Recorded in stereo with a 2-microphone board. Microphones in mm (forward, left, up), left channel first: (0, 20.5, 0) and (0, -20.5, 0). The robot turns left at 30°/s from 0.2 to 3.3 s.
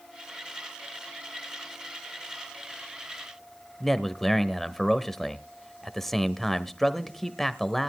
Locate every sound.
3.8 s a man speaking: 5° left (ahead or behind), 0.9 m